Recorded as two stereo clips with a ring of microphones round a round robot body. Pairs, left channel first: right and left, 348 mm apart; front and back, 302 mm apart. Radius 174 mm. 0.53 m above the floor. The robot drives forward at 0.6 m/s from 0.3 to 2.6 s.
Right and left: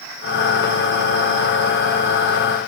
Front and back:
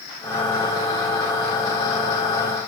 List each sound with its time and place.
Only background noise.